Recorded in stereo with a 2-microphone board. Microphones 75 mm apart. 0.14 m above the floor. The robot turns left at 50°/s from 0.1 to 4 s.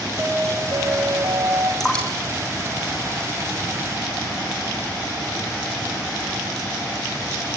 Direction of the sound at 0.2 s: 25° right.